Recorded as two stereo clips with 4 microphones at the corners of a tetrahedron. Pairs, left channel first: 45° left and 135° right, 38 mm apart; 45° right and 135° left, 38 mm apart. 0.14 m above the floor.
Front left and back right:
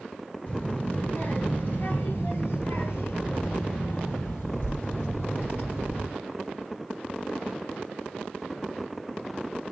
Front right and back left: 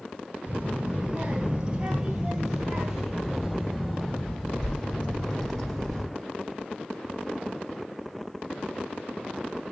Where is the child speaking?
90° left, 2 m; by 6.0 s 30° left, 5 m.